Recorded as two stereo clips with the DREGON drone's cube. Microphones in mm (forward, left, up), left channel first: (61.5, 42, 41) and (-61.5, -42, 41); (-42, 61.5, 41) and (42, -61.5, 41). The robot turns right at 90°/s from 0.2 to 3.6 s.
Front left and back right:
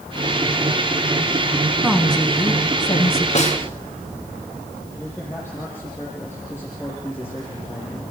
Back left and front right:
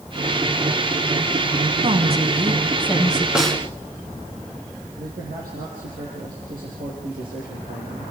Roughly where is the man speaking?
Ahead right.